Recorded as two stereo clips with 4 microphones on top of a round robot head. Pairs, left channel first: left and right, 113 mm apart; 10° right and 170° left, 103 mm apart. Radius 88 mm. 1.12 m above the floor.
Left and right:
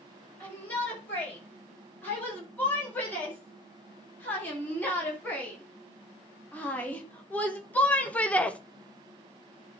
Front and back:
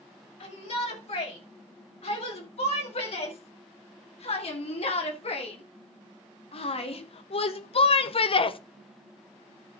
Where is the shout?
10° left, 7 m.